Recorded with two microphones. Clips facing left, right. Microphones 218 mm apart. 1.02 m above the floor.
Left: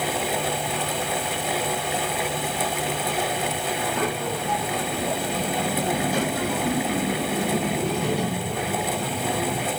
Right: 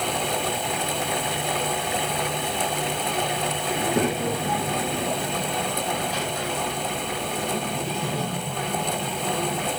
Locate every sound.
3.8 s a child speaking: 35° right (ahead or behind), 1.3 m; by 9.7 s 85° left, 3 m